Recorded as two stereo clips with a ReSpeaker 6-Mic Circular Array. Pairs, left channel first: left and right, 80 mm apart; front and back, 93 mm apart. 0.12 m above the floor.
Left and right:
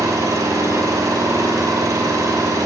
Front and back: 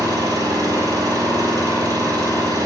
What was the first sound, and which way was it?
An engine running, 135° right.